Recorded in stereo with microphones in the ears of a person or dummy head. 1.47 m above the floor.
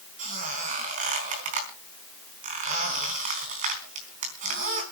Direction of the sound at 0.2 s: 45° right (ahead or behind).